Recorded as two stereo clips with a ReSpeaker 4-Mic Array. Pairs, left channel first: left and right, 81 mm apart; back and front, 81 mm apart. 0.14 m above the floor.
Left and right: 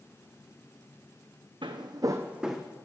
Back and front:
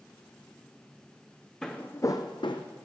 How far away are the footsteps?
About 0.7 m.